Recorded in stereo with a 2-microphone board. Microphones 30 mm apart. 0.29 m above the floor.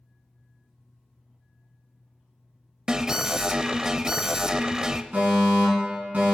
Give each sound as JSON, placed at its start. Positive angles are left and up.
{"t": 2.9, "sound": "an alarm", "side_deg": -20, "distance_m": 0.6}
{"t": 5.1, "sound": "a fire alarm", "side_deg": -45, "distance_m": 4.5}